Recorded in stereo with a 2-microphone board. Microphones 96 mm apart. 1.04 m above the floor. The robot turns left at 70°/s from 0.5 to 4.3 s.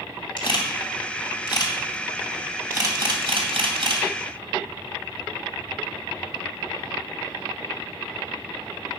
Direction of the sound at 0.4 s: 55° left (ahead or behind).